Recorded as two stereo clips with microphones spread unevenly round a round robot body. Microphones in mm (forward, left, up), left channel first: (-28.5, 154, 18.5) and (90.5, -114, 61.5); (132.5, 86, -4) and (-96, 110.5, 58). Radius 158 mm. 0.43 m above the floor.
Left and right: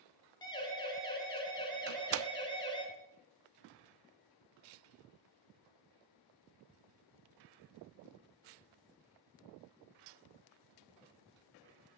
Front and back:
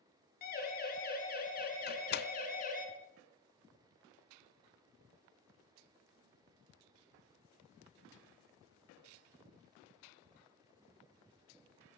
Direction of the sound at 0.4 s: 40° left.